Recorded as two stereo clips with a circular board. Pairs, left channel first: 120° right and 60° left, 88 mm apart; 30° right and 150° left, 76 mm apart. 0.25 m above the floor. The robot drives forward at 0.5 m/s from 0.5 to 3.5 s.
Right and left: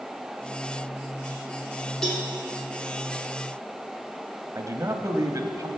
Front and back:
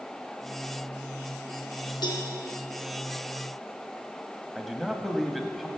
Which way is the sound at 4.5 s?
60° left.